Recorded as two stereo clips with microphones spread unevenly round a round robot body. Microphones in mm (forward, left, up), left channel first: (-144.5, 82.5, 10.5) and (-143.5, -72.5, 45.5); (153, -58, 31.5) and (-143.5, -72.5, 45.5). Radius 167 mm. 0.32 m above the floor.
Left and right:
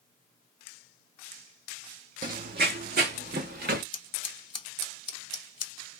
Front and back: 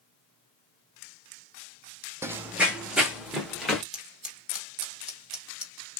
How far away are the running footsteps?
About 0.7 m.